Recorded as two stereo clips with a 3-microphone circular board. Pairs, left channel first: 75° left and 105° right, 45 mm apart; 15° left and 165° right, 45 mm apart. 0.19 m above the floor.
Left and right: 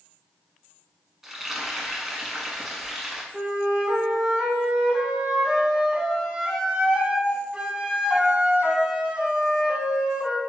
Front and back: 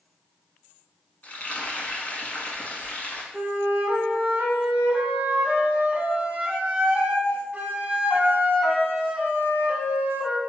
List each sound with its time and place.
1.2 s frying: 25° right, 0.7 m
3.3 s a flute: 145° right, 0.7 m